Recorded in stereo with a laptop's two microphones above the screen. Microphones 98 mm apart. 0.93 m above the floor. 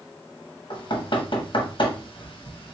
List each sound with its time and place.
0.7 s knocking: 55° left (ahead or behind), 0.9 m